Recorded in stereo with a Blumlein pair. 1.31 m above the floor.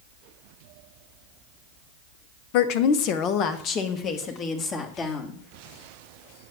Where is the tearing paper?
I don't hear tearing paper.